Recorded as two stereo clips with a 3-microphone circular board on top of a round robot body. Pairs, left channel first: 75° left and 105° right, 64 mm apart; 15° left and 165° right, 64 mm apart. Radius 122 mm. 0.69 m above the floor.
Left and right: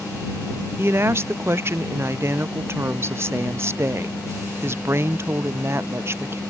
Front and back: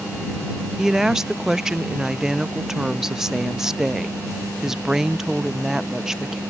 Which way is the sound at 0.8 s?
85° right.